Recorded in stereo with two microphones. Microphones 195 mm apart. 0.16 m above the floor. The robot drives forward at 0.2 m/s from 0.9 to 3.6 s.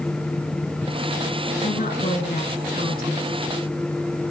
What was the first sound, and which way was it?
A woman speaking, 45° left (ahead or behind).